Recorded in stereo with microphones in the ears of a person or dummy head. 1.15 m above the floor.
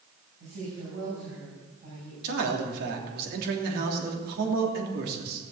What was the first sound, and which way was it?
A woman speaking, 45° right (ahead or behind).